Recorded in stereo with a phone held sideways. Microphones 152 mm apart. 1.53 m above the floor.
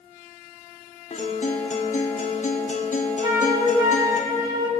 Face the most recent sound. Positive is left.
turn(degrees=-30)  # may be behind; listen again after turning